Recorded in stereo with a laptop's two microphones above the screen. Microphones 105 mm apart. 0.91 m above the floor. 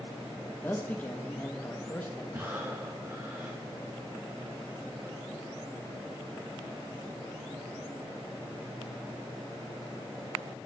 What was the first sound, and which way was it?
A man speaking, 15° left (ahead or behind).